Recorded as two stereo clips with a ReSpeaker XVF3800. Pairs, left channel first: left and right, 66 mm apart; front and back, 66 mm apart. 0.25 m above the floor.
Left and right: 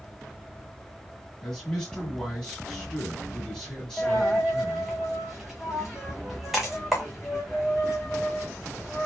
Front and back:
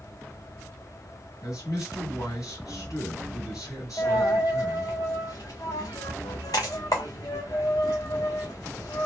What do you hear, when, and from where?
1.4 s a man speaking: 10° left, 3 m
4.0 s a dropped coin: straight ahead, 1.6 m